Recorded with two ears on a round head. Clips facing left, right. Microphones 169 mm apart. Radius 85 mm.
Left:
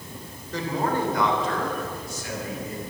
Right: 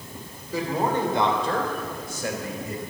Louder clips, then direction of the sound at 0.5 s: Right 1 dB; 5° right (ahead or behind).